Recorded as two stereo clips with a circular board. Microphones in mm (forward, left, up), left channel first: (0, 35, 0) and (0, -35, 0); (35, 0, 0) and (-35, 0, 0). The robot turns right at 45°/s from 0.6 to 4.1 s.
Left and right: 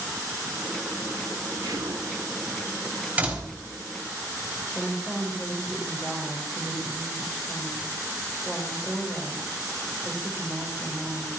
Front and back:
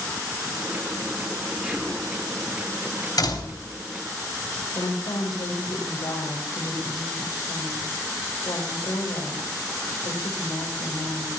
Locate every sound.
1.6 s whispering: 100° right, 2 m; by 2.1 s 80° right, 2 m
3.2 s a door slam: 25° right, 4 m; by 3.7 s 5° right, 4 m
4.8 s a woman speaking: 5° right, 5 m